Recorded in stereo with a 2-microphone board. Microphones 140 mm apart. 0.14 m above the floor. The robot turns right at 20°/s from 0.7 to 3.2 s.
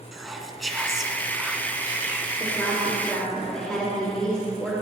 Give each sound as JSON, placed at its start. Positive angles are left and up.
{"t": 0.1, "sound": "whispering", "side_deg": 0, "distance_m": 1.2}
{"t": 2.4, "sound": "a woman speaking", "side_deg": 20, "distance_m": 5.0}